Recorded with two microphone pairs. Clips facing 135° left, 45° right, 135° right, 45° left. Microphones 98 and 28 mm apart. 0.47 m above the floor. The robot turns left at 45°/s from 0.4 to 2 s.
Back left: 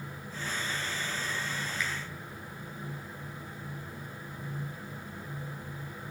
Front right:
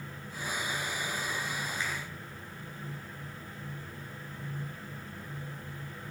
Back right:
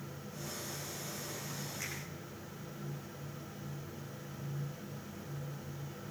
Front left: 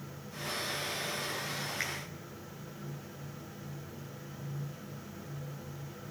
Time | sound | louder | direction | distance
1.8 | a finger snap | back left 2 dB, front left 7 dB | 15° left | 6.5 m